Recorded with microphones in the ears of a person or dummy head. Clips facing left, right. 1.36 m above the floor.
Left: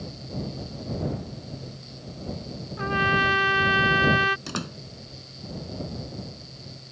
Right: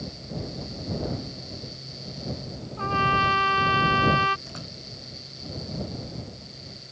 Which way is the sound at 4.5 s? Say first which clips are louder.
Left 7 dB; 85° left.